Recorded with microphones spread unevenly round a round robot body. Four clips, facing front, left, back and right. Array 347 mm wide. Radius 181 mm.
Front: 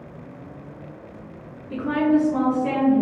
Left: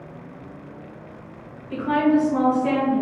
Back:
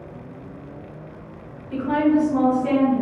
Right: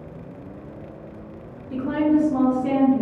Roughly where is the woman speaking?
Ahead.